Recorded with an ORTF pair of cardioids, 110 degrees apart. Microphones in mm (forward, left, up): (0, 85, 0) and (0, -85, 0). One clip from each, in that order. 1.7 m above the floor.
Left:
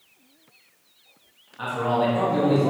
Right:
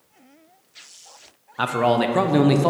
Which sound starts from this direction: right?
A man speaking, at 1.6 s.